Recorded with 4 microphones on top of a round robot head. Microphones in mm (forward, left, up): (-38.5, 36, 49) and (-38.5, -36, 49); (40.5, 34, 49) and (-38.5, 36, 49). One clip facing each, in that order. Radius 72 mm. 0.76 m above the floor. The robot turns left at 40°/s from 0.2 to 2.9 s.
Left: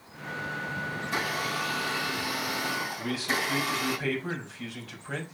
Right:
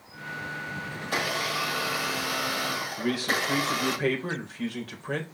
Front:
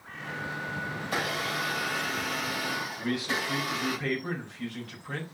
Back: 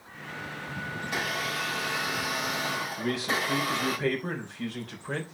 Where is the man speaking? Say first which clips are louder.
Right 6 dB, back 2 dB; 125° right, 4 m.